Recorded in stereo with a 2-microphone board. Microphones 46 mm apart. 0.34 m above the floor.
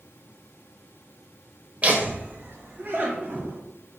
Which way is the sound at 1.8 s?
30° right (ahead or behind).